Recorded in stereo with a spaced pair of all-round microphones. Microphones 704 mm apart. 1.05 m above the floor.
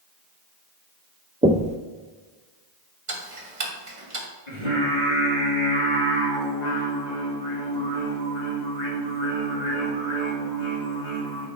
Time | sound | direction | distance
1.4 | knocking | 10° right (ahead or behind) | 0.6 m
3.1 | ticking | 80° right | 1.9 m
4.5 | singing | 70° left (ahead or behind) | 2.5 m